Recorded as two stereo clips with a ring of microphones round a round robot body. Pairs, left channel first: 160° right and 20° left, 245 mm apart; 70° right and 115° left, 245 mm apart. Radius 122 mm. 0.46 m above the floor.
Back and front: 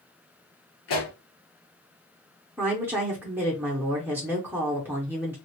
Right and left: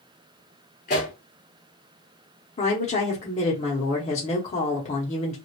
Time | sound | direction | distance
0.9 | a pop | 125° right | 2.5 m
2.6 | a woman speaking | 50° right | 0.8 m